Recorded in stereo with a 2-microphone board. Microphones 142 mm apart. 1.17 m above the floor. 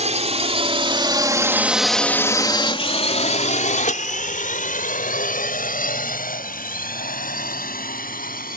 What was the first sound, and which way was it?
A drone, 55° right (ahead or behind).